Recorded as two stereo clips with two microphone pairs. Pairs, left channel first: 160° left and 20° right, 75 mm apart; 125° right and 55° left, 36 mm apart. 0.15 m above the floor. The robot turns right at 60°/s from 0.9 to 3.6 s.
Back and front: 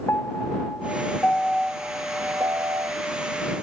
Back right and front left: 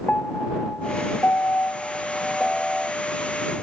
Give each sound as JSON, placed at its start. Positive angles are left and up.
{"t": 0.1, "sound": "a piano", "azimuth_deg": -155}